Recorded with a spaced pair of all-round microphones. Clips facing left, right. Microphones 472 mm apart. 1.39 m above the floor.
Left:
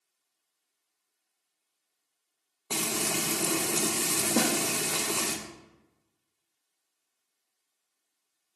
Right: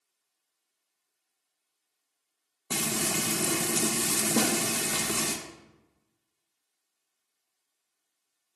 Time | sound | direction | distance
2.7 | frying | 35° right (ahead or behind) | 0.6 m
4.3 | a snare drum | centre (ahead or behind) | 0.8 m